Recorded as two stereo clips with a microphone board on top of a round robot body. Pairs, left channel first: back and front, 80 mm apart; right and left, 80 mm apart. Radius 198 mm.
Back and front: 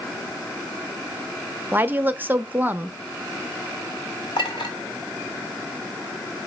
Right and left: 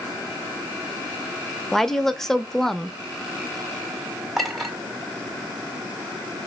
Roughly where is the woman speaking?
Ahead.